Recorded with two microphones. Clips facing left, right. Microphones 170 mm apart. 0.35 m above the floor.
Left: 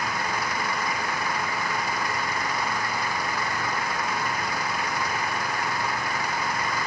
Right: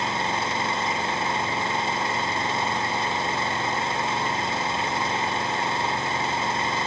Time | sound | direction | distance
0.0 | an engine running | 25° right (ahead or behind) | ?